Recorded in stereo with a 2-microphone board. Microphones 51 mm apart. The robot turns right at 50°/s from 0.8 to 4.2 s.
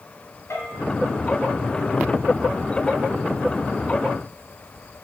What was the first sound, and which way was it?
A bell, 65° left (ahead or behind).